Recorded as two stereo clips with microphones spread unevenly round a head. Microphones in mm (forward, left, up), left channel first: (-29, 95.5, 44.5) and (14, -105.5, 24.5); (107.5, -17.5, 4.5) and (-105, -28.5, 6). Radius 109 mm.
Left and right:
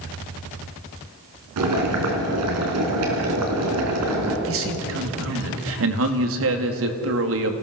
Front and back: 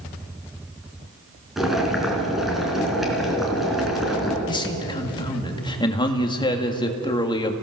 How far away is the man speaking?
About 2 m.